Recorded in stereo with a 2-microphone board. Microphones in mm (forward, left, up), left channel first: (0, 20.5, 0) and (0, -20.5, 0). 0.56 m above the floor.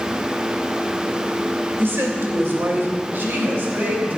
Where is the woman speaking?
65° right (ahead or behind), 2.5 m; by 4.2 s 50° right (ahead or behind), 4.5 m.